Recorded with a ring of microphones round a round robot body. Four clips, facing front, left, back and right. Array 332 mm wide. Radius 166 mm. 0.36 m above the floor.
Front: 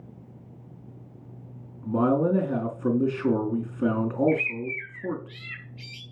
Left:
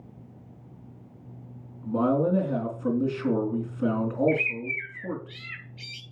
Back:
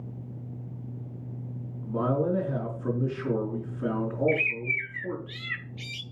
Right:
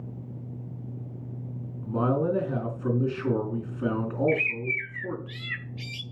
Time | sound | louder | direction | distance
1.8 | a man speaking | left 2 dB, front 4 dB | 10° right | 4 m
4.3 | a bird | even, front 2 dB | 140° right | 1.8 m